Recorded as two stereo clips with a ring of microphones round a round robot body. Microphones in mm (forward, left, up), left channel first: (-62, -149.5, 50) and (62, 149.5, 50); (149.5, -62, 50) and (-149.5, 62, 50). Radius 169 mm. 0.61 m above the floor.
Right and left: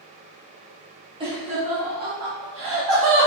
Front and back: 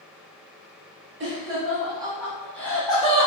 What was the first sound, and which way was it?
Laughter, 130° left.